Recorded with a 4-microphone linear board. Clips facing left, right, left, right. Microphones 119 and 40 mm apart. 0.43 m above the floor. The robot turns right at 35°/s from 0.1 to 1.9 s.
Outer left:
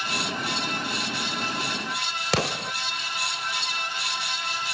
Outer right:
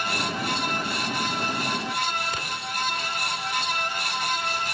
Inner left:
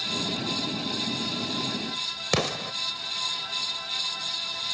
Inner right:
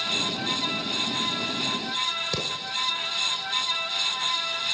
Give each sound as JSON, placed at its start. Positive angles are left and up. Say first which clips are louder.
{"t": 2.3, "sound": "an explosion", "louder": "outer left 6 dB, inner left 3 dB", "side_deg": 75, "distance_m": 0.6}